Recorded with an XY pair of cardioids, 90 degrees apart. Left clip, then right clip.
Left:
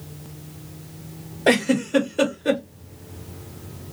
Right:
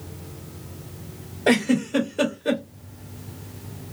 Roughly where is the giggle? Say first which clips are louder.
Left 2 dB; ahead left.